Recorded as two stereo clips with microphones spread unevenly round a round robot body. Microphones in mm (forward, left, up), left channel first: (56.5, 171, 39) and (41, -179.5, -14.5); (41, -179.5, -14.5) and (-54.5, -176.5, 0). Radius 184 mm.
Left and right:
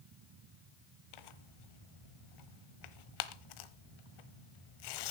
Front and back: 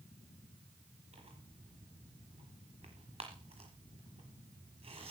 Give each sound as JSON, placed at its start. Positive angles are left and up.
{"t": 1.1, "sound": "tearing paper", "azimuth_deg": 120, "distance_m": 1.1}